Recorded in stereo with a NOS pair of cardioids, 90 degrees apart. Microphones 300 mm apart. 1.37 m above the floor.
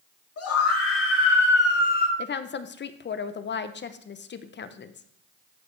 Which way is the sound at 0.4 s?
50° left.